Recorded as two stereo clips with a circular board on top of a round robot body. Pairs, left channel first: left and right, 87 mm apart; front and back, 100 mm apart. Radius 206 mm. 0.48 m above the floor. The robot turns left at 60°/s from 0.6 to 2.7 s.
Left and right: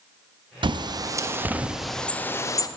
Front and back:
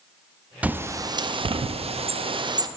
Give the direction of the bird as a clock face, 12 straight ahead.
4 o'clock.